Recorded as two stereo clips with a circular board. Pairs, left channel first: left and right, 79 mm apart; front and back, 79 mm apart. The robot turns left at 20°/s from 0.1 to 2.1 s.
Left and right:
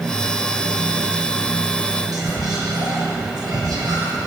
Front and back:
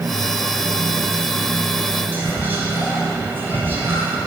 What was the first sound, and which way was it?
Whispering, 120° right.